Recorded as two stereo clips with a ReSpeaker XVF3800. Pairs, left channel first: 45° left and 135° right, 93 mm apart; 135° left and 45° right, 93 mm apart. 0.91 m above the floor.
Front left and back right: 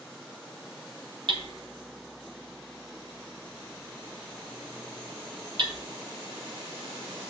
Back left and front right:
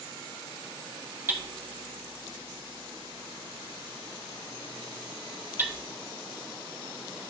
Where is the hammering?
110° right, 1.0 m.